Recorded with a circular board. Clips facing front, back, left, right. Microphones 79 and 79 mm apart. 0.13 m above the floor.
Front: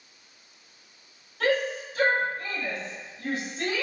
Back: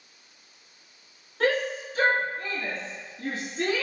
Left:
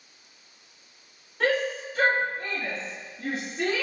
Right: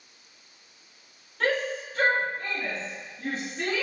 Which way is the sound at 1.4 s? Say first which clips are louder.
Even, left 2 dB; 165° left.